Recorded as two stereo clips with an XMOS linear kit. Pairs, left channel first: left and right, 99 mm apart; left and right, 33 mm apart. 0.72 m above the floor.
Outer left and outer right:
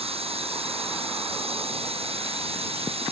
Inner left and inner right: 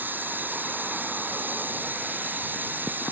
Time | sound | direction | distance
0.0 | running water | 80° right | ?